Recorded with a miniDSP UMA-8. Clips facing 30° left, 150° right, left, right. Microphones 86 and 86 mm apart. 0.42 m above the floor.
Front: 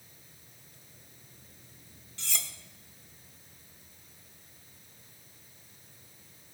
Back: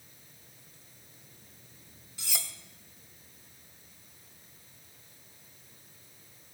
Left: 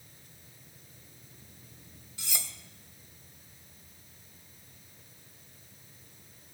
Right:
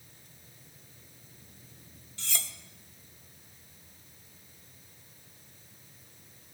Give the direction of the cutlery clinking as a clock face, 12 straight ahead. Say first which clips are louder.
Even, right 1 dB; 7 o'clock.